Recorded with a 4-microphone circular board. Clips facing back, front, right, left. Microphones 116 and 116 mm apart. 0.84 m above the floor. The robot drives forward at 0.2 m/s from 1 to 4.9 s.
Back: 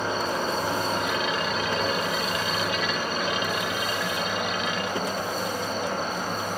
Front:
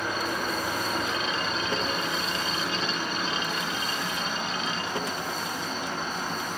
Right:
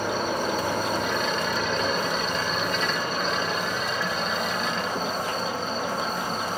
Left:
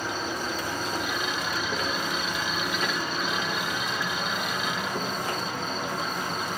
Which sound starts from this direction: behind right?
An insect, at 0.0 s.